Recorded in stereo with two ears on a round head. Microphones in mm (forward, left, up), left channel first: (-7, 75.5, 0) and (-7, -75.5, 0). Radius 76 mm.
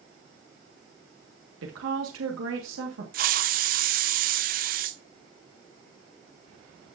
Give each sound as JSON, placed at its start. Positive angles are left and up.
{"t": 1.6, "sound": "a woman speaking", "side_deg": -85, "distance_m": 1.6}
{"t": 3.1, "sound": "a hiss", "side_deg": -50, "distance_m": 0.6}